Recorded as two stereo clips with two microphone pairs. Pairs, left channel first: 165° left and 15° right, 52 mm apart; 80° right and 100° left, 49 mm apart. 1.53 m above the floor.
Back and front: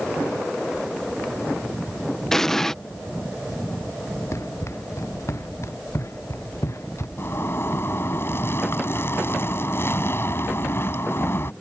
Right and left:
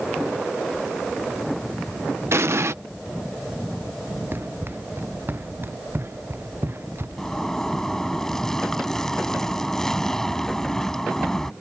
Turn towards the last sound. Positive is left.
turn(degrees=-160)